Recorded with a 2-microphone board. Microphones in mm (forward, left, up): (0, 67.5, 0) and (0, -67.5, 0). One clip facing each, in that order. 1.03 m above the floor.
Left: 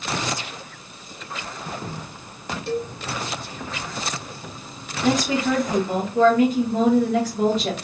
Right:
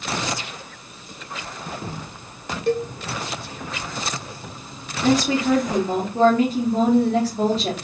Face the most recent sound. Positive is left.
turn(degrees=-35)  # may be behind; listen again after turning